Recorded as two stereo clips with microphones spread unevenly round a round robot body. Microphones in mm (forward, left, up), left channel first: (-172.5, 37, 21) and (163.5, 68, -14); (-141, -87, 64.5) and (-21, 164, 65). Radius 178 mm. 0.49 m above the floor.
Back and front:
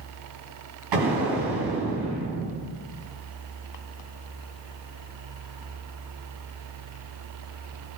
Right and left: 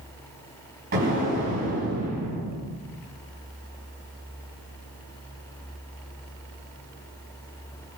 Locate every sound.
0.9 s an explosion: straight ahead, 3.5 m